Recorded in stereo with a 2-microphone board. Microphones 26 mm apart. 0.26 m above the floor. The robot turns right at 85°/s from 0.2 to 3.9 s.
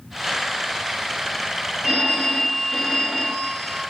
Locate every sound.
1.8 s a phone ringing: 20° right (ahead or behind), 0.6 m; by 3.8 s 25° left (ahead or behind), 0.6 m